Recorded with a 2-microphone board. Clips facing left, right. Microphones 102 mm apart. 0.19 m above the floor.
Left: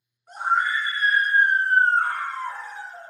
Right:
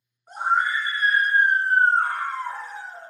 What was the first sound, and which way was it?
A scream, 25° right (ahead or behind).